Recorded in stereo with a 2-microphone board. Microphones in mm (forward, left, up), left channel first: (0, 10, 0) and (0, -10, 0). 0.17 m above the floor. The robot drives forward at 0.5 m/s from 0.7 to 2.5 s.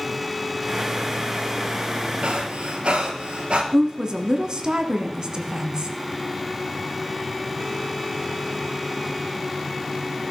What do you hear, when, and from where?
2.2 s breathing: 70° right (ahead or behind), 1.8 m
3.7 s a woman speaking: 40° right (ahead or behind), 1.4 m